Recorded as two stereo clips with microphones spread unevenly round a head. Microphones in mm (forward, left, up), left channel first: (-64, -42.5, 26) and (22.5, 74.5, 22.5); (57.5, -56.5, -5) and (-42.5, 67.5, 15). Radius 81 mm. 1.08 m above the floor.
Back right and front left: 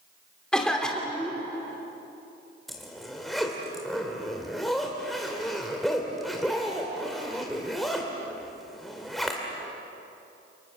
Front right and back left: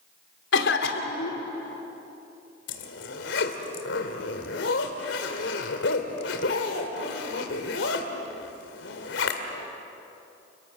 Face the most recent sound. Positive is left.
turn(degrees=-35)